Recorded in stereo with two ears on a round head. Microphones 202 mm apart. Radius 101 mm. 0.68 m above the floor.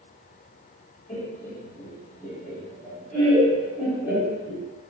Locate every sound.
1.1 s laughter: 25° left (ahead or behind), 1.8 m; by 4.7 s 15° right (ahead or behind), 1.1 m